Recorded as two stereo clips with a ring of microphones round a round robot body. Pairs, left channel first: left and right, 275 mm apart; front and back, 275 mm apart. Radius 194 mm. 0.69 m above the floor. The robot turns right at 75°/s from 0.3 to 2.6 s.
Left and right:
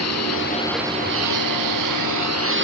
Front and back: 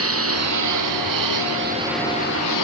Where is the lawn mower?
145° left; by 2.6 s 40° right.